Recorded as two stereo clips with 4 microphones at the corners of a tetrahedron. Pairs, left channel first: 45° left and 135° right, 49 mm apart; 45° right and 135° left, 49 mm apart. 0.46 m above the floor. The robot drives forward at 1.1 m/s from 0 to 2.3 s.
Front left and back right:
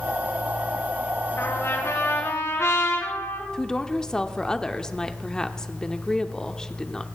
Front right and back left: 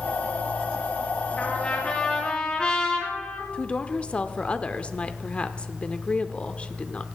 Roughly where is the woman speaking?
Ahead.